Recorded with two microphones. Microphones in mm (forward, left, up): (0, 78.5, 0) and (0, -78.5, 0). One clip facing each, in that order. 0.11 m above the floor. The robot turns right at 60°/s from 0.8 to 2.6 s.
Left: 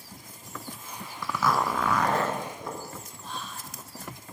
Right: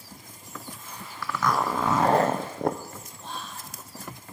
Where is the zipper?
160° left, 0.9 m; by 2.8 s 115° right, 0.9 m.